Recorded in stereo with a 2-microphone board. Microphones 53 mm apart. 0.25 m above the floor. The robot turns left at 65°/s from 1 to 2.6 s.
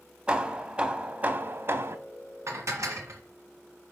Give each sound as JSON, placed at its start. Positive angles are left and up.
{"t": 0.3, "sound": "hammering", "azimuth_deg": -30, "distance_m": 0.7}
{"t": 2.5, "sound": "dishes clattering", "side_deg": -60, "distance_m": 1.7}